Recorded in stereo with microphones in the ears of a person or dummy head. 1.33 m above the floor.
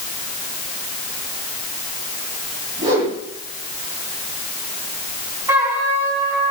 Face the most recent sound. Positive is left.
turn(degrees=-20)  # may be behind; listen again after turning